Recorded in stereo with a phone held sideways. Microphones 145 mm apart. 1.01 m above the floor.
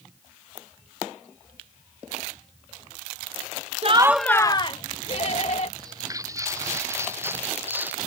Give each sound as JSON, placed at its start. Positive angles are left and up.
{"t": 3.8, "sound": "laughter", "side_deg": -45}
{"t": 5.8, "sound": "footsteps", "side_deg": -25}